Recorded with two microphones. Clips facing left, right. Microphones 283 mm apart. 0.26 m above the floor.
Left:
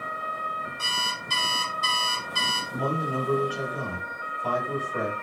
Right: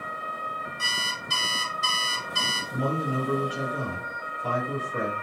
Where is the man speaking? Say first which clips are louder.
Right 1 dB; 25° right (ahead or behind), 1.4 m.